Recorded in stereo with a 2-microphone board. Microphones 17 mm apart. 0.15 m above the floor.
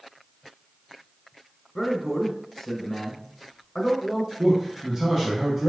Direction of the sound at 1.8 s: 15° left (ahead or behind).